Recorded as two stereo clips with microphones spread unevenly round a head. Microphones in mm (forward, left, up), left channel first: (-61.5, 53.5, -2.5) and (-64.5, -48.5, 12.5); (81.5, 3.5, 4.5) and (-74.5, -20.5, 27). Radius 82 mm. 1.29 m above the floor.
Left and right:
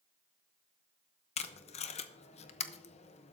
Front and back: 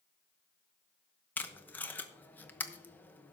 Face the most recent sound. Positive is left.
turn(degrees=85)